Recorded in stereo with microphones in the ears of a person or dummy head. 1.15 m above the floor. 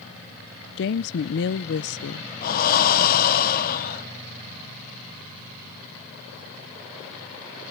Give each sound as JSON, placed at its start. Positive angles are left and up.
{"t": 0.8, "sound": "a woman speaking", "side_deg": 50, "distance_m": 0.6}
{"t": 2.4, "sound": "breathing", "side_deg": 40, "distance_m": 0.9}